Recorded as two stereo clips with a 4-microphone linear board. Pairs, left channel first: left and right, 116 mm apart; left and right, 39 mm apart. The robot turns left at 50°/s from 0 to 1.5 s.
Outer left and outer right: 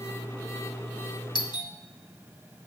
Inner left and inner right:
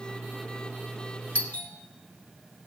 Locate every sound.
1.4 s a doorbell: 40° left (ahead or behind), 1.5 m